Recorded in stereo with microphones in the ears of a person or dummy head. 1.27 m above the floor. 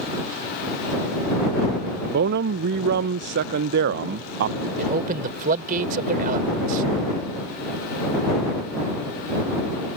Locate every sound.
2.1 s a man speaking: 55° right (ahead or behind)
4.8 s a man speaking: 45° right (ahead or behind)